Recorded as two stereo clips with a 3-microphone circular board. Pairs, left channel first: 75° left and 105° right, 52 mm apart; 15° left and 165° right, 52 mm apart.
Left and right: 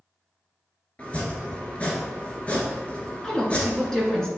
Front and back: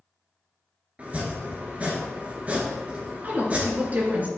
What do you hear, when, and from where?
1.0 s chopping: 135° left, 1.7 m
3.2 s a woman speaking: 150° left, 2 m